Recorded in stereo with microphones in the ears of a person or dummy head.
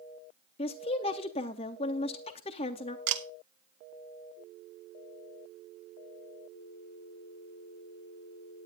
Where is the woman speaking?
30° left (ahead or behind), 0.6 m.